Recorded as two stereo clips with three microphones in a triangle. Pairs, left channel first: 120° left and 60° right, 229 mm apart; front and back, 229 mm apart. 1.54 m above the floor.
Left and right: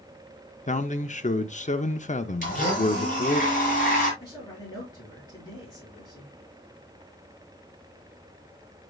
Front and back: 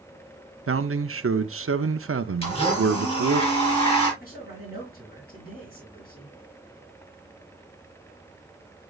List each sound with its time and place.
0.7 s a man speaking: 175° left, 0.6 m
2.4 s a blender: 65° left, 6.5 m
4.2 s a man speaking: 45° left, 6.5 m